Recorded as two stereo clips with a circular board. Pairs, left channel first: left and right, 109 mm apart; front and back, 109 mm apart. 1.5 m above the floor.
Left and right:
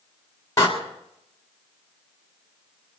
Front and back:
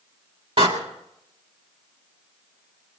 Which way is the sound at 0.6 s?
150° left.